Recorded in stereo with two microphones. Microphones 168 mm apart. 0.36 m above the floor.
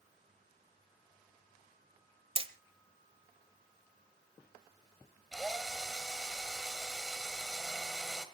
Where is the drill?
Centre (ahead or behind), 1.9 m.